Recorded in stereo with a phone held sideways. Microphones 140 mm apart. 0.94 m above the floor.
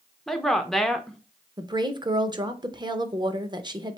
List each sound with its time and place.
0.3 s a woman speaking: centre (ahead or behind), 0.6 m
1.6 s a woman speaking: 30° right (ahead or behind), 0.6 m